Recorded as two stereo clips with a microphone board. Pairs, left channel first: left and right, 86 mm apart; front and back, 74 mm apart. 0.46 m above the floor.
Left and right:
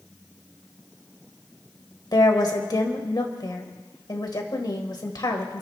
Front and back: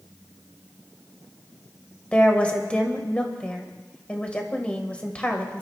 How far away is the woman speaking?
About 1.8 m.